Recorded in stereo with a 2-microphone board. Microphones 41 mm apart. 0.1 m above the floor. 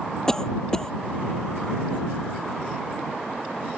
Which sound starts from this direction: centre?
A cough, at 0.3 s.